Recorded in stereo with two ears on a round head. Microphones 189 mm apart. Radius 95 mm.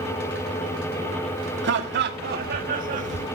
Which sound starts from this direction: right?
Laughter, at 1.6 s.